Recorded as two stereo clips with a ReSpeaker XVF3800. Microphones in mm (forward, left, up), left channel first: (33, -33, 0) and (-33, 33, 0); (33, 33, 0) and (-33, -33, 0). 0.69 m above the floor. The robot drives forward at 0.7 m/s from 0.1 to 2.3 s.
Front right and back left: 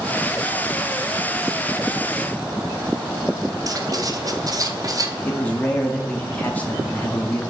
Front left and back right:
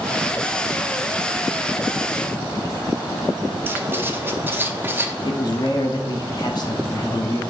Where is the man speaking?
25° left, 1.1 m.